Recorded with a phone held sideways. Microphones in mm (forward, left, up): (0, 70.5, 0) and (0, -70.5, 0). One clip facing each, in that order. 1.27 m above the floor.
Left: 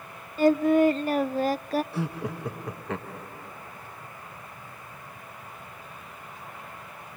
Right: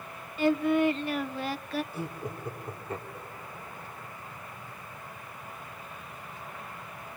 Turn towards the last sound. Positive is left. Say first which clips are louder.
# left 5 dB
turn(degrees=80)